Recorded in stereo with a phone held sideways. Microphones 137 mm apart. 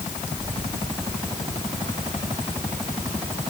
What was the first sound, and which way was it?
Only background noise.